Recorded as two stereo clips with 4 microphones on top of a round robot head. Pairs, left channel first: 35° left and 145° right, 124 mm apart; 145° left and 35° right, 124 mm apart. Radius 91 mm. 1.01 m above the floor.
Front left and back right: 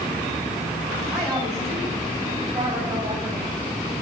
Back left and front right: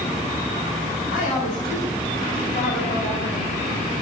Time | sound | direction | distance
1.1 | a woman speaking | 135° left | 9 m